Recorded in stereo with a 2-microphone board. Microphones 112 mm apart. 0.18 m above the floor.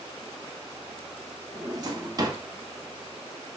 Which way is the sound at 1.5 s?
35° right (ahead or behind).